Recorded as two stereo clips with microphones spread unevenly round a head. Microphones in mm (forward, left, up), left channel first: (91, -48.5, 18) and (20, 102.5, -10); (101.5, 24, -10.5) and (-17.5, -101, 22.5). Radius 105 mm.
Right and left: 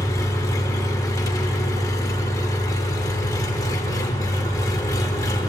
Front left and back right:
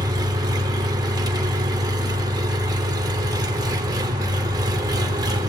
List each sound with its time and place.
0.0 s an engine running: 105° right, 1.2 m